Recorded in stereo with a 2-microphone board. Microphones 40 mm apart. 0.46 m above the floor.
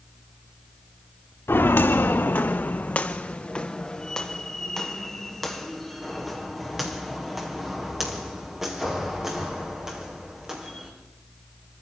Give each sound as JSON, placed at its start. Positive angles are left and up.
{"t": 1.5, "sound": "footsteps", "side_deg": 75, "distance_m": 1.6}